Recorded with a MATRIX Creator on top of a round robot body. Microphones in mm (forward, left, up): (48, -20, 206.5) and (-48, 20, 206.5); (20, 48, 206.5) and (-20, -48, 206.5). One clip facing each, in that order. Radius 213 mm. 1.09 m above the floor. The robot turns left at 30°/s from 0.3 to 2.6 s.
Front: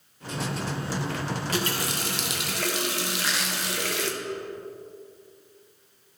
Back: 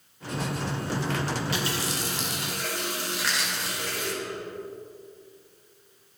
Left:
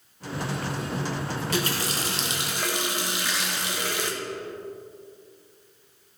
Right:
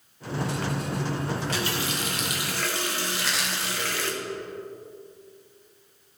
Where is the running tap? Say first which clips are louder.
Front 1 dB, left 1 dB; 25° left, 0.7 m; by 4.1 s 5° right, 0.7 m.